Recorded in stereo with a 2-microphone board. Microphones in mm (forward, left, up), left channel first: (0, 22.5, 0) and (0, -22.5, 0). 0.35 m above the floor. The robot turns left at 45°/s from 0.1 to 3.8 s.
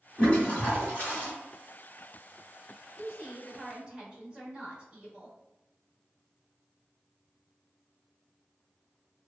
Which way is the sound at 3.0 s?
25° right (ahead or behind).